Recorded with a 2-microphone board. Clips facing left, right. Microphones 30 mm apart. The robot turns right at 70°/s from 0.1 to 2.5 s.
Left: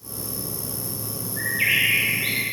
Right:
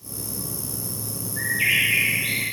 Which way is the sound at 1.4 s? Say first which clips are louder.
Even; 10° right.